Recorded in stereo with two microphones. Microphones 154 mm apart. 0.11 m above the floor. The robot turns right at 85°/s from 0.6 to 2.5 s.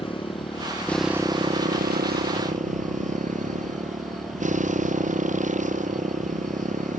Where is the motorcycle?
145° left; by 7.0 s 55° right.